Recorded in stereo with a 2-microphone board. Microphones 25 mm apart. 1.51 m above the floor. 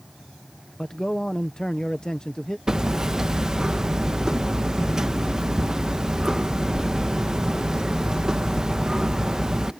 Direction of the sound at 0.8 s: 25° left (ahead or behind).